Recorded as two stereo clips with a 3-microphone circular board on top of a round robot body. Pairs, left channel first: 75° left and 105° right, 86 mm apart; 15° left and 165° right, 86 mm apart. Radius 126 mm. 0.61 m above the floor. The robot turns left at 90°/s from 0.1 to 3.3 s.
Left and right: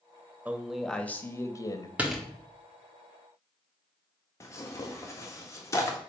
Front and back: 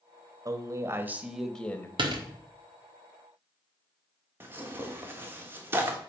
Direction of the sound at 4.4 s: 130° left.